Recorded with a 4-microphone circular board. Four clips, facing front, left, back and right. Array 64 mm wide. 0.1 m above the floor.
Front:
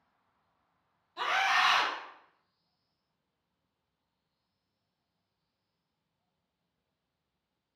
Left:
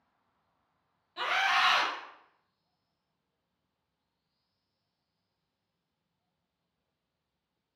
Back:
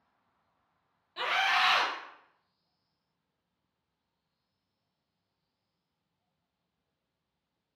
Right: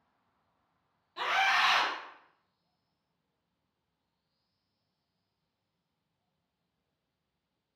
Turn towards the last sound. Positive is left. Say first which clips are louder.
# even, even
turn(degrees=175)